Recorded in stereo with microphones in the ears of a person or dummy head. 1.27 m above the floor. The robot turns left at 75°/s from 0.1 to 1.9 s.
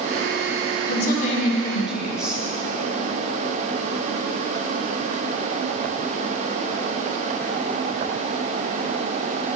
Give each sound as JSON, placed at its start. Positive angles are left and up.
{"t": 0.9, "sound": "a woman speaking", "azimuth_deg": 70, "distance_m": 2.0}